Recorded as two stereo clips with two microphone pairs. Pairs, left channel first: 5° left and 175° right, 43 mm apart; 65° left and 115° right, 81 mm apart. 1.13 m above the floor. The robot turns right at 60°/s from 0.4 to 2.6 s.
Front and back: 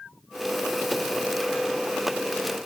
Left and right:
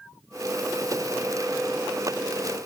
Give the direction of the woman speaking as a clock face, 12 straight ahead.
I don't hear a woman speaking.